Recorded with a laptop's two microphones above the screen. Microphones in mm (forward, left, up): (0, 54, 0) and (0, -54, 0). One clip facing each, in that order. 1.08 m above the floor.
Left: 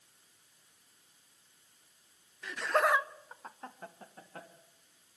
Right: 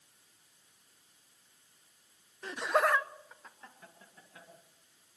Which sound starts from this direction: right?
Laughter, at 2.4 s.